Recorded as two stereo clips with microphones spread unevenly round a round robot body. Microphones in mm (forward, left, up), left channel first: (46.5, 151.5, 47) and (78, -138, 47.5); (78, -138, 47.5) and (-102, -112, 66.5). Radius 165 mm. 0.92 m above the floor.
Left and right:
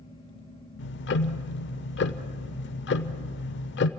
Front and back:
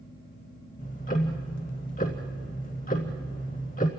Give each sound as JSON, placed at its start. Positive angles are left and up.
{"t": 0.8, "sound": "ticking", "azimuth_deg": 55, "distance_m": 0.8}